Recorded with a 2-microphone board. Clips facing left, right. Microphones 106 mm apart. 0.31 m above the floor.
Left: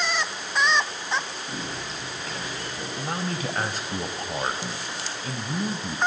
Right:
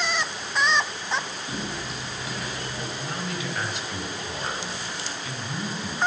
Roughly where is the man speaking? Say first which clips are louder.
Left 6 dB; left.